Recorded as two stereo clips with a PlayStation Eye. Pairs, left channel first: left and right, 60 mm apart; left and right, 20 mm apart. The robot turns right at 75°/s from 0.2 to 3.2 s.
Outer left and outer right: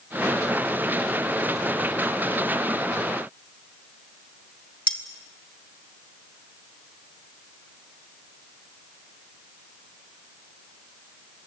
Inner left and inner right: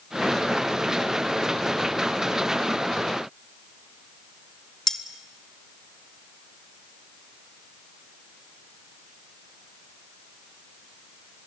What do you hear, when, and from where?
4.9 s cutlery clinking: 20° left (ahead or behind), 1.5 m